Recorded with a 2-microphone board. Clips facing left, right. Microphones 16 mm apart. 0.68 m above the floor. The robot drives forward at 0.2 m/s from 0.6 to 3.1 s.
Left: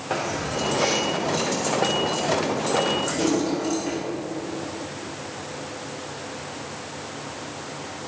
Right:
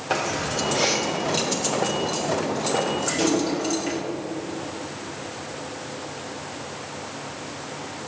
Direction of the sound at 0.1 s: 30° right (ahead or behind).